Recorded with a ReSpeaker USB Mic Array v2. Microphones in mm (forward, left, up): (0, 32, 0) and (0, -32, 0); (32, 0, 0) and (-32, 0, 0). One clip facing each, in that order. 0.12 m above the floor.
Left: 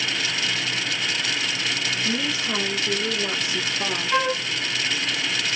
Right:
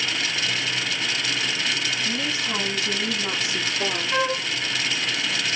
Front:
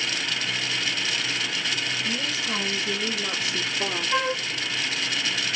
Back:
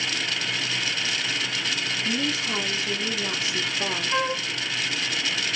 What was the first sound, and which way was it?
A woman speaking, 70° left.